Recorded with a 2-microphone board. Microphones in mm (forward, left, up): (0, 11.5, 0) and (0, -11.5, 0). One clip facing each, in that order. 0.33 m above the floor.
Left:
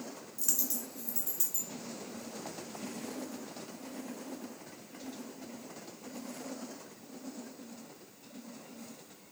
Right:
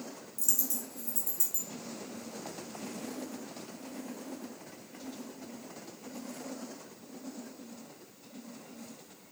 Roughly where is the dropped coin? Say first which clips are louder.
Right 1 dB; left.